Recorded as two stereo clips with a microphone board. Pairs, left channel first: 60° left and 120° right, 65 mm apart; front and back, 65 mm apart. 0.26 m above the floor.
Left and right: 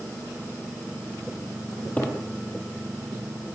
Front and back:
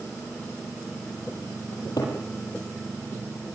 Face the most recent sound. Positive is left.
turn(degrees=-10)